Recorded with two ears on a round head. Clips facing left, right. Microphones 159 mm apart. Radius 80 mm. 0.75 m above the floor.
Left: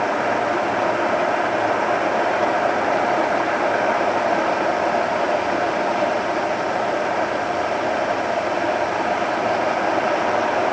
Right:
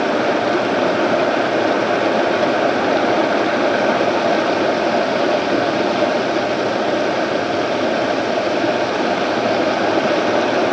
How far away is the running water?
About 0.9 m.